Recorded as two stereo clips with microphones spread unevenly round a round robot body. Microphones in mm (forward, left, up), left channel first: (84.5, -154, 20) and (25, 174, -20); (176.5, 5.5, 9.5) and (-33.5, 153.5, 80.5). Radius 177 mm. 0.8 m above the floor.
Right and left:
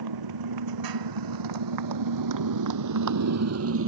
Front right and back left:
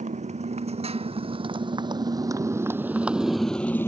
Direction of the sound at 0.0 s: 80° left.